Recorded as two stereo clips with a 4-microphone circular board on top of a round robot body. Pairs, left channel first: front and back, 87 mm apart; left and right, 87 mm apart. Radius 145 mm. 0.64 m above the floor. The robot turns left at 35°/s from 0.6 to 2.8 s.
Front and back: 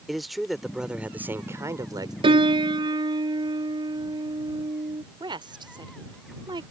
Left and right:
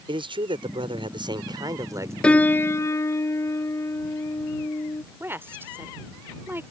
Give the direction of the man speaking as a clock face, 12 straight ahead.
3 o'clock.